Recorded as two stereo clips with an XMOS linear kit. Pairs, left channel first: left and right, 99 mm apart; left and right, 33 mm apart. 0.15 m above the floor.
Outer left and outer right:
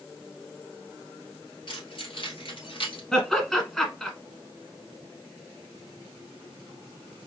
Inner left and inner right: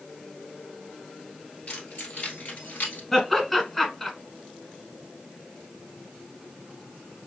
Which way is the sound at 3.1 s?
5° left (ahead or behind).